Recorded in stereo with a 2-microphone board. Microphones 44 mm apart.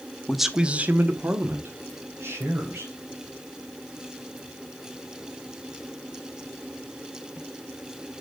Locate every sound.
0.3 s a man speaking: 5° left (ahead or behind), 0.9 m; by 2.9 s 80° right, 3 m